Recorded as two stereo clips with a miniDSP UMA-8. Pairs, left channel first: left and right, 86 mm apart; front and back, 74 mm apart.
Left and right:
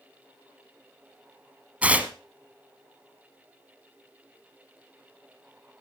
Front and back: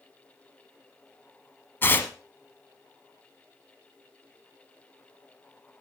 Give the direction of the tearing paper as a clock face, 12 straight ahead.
1 o'clock.